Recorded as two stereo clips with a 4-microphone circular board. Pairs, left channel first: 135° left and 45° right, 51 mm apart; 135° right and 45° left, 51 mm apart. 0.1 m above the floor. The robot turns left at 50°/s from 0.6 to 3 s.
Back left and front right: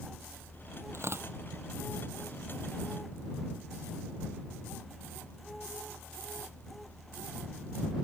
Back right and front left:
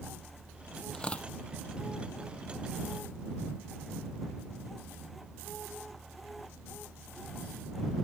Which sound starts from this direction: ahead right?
Tearing paper, at 0.9 s.